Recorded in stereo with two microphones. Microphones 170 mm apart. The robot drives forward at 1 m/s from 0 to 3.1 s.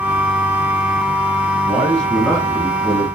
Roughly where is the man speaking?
Centre.